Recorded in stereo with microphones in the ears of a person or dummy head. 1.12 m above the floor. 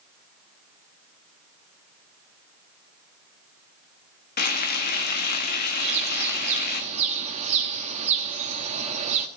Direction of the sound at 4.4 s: 50° left (ahead or behind).